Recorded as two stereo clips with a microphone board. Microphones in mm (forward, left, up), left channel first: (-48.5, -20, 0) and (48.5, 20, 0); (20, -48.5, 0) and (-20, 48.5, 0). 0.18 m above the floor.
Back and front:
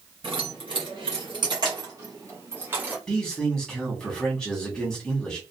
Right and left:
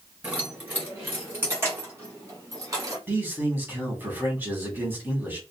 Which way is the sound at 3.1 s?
135° left.